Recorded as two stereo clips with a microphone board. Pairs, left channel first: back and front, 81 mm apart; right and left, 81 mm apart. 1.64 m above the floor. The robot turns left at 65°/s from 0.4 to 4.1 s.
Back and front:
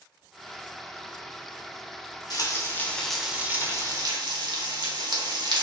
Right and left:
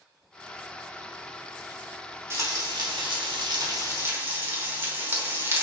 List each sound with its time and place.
2.3 s frying: 145° left, 1.2 m; by 5.6 s 30° left, 1.2 m